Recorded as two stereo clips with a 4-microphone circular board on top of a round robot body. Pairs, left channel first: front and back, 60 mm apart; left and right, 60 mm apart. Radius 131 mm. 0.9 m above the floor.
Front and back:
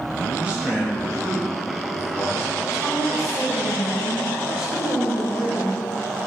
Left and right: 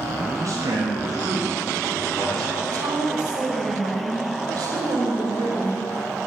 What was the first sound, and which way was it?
A man speaking, 115° right.